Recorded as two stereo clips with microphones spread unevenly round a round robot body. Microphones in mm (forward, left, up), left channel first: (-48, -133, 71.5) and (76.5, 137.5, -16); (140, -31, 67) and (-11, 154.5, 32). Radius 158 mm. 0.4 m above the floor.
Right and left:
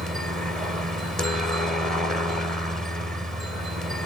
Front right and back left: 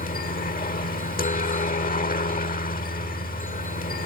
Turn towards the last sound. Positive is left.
turn(degrees=-5)